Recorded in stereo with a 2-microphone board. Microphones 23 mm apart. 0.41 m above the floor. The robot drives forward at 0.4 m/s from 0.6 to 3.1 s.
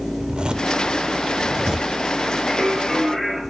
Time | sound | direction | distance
0.2 | a zipper | 40° right (ahead or behind) | 0.7 m
2.5 | singing | 10° left (ahead or behind) | 6 m